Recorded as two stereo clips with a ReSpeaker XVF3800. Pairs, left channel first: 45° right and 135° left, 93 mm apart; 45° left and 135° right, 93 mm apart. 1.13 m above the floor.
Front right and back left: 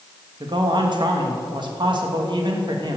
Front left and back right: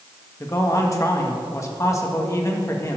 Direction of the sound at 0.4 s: 100° left.